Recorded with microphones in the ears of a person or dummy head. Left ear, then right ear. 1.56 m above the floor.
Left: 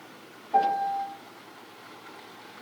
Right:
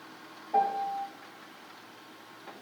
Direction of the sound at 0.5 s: Centre (ahead or behind).